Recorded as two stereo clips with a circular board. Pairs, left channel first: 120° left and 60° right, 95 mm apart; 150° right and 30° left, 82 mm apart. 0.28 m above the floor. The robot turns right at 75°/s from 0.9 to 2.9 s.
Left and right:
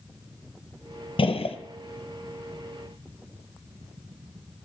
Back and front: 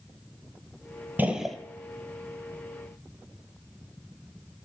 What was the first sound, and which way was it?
A gunshot, 100° left.